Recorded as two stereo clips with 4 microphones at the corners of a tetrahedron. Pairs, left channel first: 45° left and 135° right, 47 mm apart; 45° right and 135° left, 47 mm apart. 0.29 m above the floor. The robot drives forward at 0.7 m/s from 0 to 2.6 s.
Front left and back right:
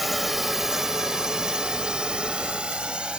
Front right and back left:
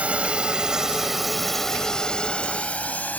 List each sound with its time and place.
0.0 s a drone: 140° left; by 3.2 s 75° right